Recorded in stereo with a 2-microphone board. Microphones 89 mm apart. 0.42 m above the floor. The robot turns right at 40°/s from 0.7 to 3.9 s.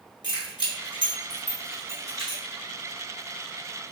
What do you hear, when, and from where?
0.2 s keys jangling: 55° left (ahead or behind), 1.5 m; by 2.4 s 30° left (ahead or behind), 1.5 m